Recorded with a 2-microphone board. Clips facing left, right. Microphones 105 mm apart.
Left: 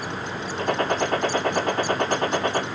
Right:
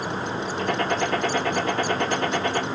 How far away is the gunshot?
About 2.0 m.